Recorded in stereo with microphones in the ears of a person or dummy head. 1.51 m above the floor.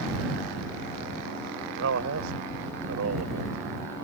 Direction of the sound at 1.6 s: 70° right (ahead or behind).